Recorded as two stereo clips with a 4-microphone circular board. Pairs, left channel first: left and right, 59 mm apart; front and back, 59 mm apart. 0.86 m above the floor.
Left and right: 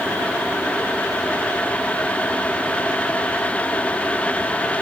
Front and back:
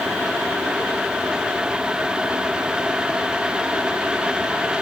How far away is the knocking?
No knocking in this recording.